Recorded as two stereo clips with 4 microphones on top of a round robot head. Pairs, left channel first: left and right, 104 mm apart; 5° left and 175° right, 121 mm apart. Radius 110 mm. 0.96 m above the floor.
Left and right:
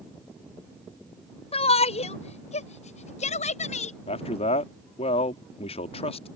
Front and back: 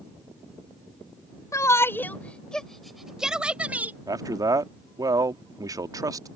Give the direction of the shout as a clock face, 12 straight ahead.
10 o'clock.